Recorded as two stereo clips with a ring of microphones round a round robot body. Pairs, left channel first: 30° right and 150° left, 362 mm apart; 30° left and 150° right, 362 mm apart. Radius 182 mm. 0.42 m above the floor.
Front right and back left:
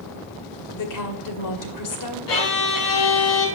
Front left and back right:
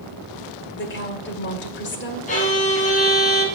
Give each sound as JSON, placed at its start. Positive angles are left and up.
{"t": 0.7, "sound": "a woman speaking", "azimuth_deg": -20, "distance_m": 2.0}
{"t": 2.3, "sound": "a violin", "azimuth_deg": -40, "distance_m": 3.5}